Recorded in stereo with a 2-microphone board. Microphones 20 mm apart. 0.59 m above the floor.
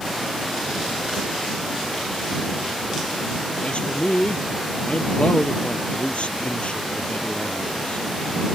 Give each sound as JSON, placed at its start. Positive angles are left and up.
{"t": 3.6, "sound": "a man speaking", "side_deg": 60}